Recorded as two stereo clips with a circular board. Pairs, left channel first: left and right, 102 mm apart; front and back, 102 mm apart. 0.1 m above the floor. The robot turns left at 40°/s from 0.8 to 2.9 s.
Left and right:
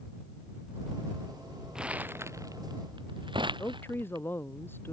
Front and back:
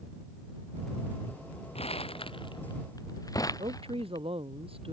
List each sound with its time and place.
1.8 s crumpling: 5° right; by 4.2 s 55° right
3.5 s a woman speaking: 160° left